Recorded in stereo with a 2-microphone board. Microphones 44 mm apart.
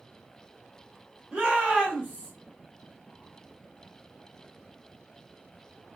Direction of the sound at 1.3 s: 25° right (ahead or behind).